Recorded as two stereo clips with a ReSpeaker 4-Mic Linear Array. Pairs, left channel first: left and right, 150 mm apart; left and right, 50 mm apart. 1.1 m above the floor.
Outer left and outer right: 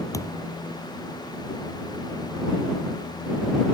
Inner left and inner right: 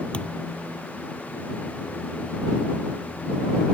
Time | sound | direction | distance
0.1 | a thud | 20° left (ahead or behind) | ?